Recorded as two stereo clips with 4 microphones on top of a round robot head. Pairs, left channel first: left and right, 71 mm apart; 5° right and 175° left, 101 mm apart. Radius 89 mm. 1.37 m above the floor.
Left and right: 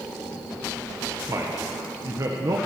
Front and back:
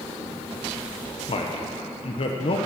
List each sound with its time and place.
1.3 s a man speaking: 40° right, 1.2 m